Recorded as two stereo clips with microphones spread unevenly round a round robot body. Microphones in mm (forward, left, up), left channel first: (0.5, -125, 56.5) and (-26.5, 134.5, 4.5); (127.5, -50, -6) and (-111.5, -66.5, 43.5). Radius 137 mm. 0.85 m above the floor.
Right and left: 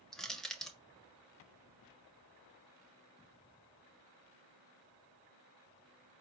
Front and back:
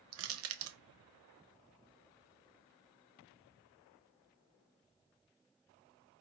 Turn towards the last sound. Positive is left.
turn(degrees=175)